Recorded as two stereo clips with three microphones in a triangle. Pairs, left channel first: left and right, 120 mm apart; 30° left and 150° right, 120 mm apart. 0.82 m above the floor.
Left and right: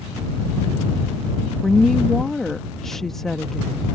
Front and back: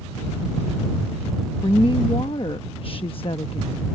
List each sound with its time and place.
1.6 s a woman speaking: 5° left